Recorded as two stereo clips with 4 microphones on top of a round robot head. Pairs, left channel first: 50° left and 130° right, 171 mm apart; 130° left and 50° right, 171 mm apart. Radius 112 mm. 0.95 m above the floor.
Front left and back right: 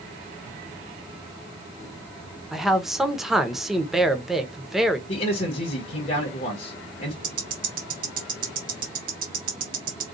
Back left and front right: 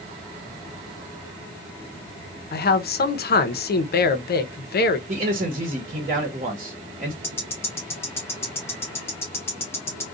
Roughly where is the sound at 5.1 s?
Ahead.